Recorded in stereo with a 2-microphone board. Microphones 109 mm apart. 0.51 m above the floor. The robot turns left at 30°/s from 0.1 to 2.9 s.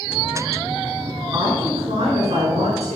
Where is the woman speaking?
45° right, 6.5 m; by 3.0 s 90° right, 6.5 m.